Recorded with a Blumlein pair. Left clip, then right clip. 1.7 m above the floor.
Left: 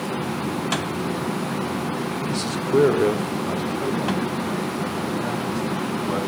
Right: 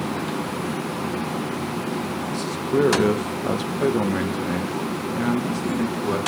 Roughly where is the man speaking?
Ahead left.